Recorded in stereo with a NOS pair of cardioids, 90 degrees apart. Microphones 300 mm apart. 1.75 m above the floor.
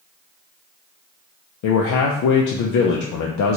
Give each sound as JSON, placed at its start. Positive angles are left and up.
{"t": 1.6, "sound": "a man speaking", "azimuth_deg": 70, "distance_m": 0.5}